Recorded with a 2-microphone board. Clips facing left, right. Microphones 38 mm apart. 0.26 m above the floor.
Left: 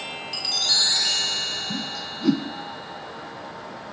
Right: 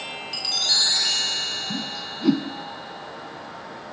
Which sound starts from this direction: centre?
A whoosh, at 1.7 s.